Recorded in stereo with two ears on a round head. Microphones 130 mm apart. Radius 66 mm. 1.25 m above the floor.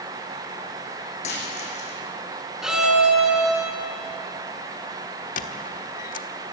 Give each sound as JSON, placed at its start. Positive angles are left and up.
{"t": 1.2, "sound": "a dropped coin", "side_deg": 55, "distance_m": 7.0}
{"t": 2.6, "sound": "a violin", "side_deg": -5, "distance_m": 6.0}
{"t": 5.4, "sound": "a squeak", "side_deg": 60, "distance_m": 1.3}